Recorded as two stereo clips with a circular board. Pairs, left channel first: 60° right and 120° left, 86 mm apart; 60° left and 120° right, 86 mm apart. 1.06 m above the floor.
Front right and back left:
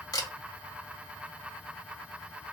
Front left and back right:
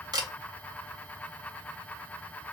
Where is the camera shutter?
95° right, 0.7 m.